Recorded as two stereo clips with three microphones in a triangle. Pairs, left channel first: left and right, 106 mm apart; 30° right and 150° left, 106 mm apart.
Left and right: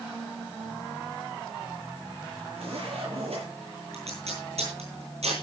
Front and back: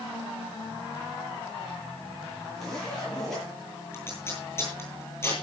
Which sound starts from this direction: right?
Tape being pulled, at 3.9 s.